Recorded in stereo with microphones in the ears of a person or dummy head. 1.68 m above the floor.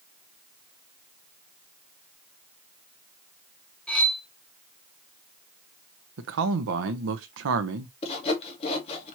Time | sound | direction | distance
3.9 | cutlery clinking | 5° left (ahead or behind) | 1.3 m
6.2 | a man speaking | 65° right (ahead or behind) | 0.8 m
8.0 | sawing | 30° left (ahead or behind) | 1.3 m